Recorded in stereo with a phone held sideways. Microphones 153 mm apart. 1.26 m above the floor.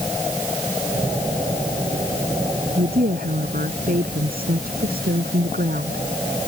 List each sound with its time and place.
2.8 s a woman speaking: 75° right (ahead or behind)